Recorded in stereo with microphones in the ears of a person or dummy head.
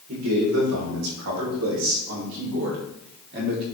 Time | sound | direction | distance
0.1 | a man speaking | 75° right (ahead or behind) | 5 m